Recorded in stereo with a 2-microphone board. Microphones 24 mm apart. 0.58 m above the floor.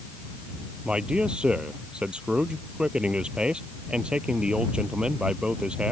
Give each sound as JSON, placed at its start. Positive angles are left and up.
{"t": 0.8, "sound": "a man speaking", "side_deg": -40}